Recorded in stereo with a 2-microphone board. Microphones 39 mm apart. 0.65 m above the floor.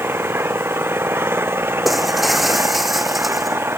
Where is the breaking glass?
Centre (ahead or behind).